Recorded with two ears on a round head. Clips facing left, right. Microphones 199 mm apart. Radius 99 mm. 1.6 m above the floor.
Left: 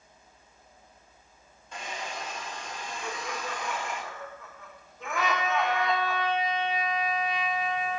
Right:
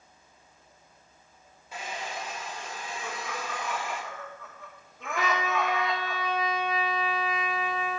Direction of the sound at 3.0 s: Centre (ahead or behind).